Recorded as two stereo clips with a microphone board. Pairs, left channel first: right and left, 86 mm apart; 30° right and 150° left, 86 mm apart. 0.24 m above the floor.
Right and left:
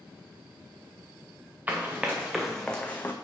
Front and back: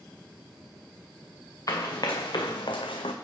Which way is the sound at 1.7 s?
20° left.